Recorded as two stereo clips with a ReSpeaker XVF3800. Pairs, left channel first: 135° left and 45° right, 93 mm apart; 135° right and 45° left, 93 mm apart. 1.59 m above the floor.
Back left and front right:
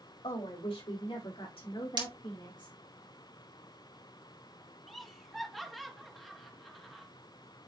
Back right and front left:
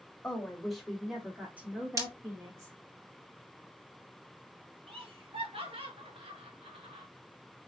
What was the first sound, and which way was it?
A woman speaking, 145° left.